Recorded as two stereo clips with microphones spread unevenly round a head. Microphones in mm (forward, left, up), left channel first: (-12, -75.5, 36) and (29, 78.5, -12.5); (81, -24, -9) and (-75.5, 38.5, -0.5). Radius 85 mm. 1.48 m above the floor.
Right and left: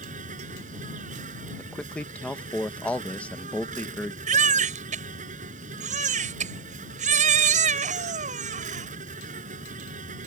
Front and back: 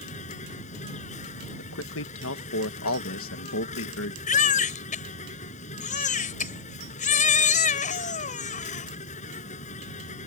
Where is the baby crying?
25° left.